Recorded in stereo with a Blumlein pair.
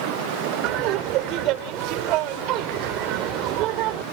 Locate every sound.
0.6 s laughter: 40° right